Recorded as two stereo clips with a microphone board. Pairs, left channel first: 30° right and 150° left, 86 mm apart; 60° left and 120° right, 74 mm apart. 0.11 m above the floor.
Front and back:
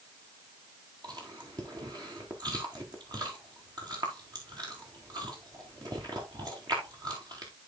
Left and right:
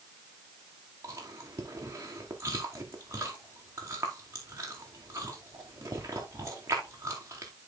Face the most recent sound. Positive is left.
turn(degrees=-170)